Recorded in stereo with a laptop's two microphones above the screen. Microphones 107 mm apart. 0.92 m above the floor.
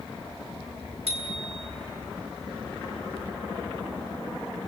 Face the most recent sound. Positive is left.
turn(degrees=-80)